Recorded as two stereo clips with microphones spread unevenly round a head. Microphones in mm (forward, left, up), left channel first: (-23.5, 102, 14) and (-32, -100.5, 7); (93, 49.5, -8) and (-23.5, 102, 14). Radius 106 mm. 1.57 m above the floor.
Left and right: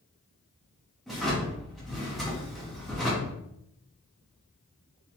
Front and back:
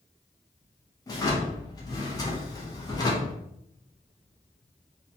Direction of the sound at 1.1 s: Straight ahead.